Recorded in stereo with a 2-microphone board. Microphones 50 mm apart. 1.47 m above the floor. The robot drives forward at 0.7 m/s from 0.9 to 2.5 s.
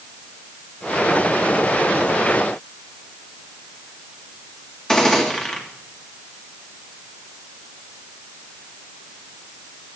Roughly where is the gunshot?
Centre.